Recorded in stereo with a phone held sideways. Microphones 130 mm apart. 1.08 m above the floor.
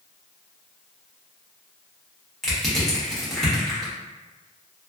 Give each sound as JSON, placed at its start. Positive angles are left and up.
{"t": 2.4, "sound": "crushing", "side_deg": 5, "distance_m": 1.1}